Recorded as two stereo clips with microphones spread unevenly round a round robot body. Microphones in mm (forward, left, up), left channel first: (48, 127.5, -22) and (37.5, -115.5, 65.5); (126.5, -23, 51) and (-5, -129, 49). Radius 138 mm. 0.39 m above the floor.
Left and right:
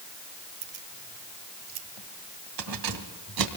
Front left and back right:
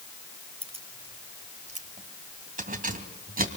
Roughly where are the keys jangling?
Right.